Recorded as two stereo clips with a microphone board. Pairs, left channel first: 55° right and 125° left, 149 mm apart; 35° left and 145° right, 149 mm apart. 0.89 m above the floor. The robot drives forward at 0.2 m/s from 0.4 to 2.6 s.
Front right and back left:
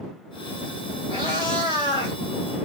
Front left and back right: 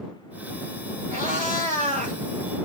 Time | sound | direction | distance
1.1 | a cat meowing | 175° right | 3.5 m